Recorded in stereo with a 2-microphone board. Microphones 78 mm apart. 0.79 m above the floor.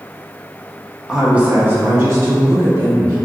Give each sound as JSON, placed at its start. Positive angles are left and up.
{"t": 1.1, "sound": "a woman speaking", "side_deg": -5, "distance_m": 0.6}